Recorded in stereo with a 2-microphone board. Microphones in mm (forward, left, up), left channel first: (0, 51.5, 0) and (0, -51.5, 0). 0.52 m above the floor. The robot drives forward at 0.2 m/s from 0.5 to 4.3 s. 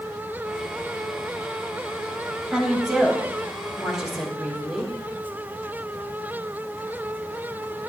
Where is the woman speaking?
5° right (ahead or behind), 2.5 m.